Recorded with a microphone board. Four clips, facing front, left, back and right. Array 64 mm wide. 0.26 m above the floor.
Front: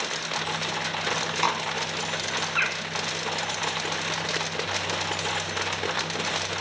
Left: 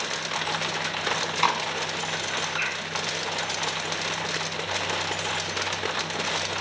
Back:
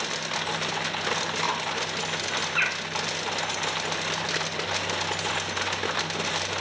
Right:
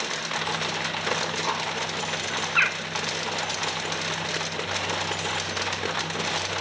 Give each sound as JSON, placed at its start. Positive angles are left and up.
{"t": 1.1, "sound": "chewing", "azimuth_deg": 65, "distance_m": 1.4}
{"t": 2.6, "sound": "a bird", "azimuth_deg": -85, "distance_m": 0.6}